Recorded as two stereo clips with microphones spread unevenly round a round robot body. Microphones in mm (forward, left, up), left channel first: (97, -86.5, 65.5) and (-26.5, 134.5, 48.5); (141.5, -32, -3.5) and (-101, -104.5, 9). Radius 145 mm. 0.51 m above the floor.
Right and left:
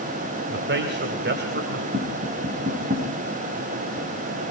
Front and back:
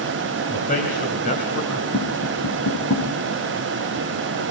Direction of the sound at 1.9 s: 60° left.